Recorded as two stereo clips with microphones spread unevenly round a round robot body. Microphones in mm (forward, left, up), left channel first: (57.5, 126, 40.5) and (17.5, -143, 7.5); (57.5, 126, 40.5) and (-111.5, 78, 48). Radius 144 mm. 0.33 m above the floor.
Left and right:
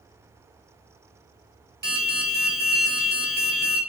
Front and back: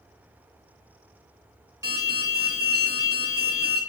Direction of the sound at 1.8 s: 90° right.